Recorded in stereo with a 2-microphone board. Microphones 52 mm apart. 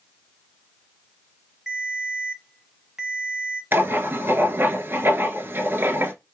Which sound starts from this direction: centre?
A ringtone, at 1.7 s.